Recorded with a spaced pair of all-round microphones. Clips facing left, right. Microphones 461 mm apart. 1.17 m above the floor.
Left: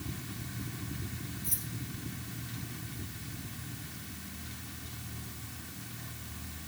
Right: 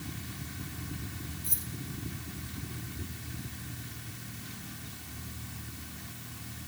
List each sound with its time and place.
1.4 s keys jangling: 50° right (ahead or behind), 2.5 m